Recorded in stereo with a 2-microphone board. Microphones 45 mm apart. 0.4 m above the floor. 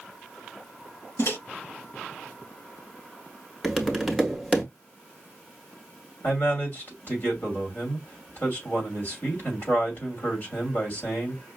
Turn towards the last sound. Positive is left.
turn(degrees=50)  # may be behind; listen again after turning